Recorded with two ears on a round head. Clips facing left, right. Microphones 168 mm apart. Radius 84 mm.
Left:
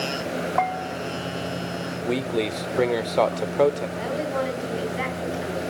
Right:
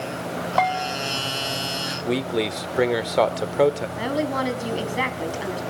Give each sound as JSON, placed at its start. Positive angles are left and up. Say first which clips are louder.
{"t": 0.6, "sound": "a bell", "louder": "right 5 dB", "side_deg": -50, "distance_m": 0.8}
{"t": 2.0, "sound": "a man speaking", "louder": "right 1 dB", "side_deg": -5, "distance_m": 1.1}
{"t": 4.0, "sound": "a woman speaking", "louder": "right 2 dB", "side_deg": -65, "distance_m": 4.0}